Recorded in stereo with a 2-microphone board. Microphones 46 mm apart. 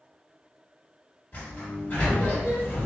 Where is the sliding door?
40° left (ahead or behind), 1.5 m.